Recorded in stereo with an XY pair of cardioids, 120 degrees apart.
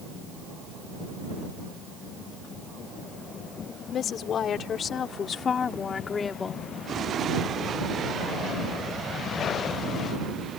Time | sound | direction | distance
3.9 | a woman speaking | 55° left | ?